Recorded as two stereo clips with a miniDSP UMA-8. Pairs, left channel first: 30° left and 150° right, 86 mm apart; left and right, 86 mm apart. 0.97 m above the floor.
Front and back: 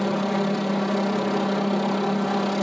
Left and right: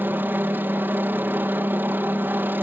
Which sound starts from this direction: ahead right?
A helicopter, at 0.0 s.